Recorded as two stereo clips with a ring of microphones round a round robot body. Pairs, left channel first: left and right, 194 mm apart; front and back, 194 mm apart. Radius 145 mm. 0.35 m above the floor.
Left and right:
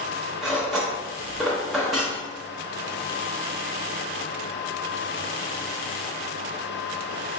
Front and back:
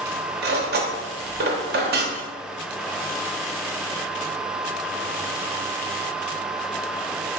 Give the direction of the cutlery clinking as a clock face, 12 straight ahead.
6 o'clock.